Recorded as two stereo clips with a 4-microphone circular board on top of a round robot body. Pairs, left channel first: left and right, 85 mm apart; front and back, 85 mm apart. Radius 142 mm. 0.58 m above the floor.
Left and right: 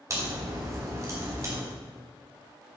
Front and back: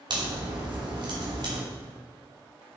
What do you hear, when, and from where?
0.1 s a crack: 145° right, 3 m